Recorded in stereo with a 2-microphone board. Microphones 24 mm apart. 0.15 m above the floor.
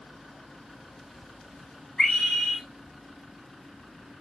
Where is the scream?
40° left (ahead or behind), 9.5 m.